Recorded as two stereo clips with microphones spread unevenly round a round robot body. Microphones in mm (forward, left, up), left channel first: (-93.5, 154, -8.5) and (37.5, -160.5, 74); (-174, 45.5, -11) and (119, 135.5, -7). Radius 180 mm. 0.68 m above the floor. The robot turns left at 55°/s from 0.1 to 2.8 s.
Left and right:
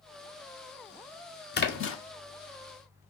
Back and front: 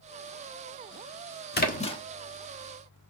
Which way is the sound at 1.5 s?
150° left.